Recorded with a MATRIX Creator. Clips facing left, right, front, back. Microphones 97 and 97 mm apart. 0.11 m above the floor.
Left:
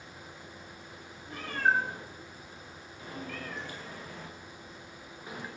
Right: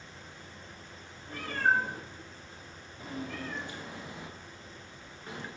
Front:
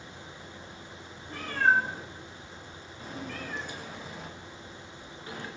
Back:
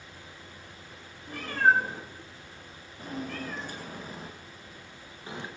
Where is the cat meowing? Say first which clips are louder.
Even, back 2 dB; 140° right, 2.5 m; by 5.5 s 150° left, 0.8 m.